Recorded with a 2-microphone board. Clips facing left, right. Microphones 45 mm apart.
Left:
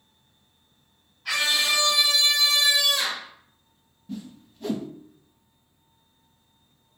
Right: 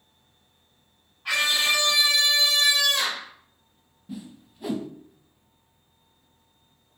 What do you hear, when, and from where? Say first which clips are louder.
1.2 s a scream: right 1 dB; 25° right (ahead or behind), 2.5 m; by 3.3 s 45° right (ahead or behind), 2 m
4.1 s a whoosh: left 2 dB; 10° right (ahead or behind), 0.5 m